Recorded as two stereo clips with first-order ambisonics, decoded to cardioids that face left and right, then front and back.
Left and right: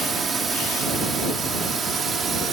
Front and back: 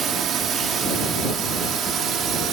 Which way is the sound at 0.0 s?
150° right.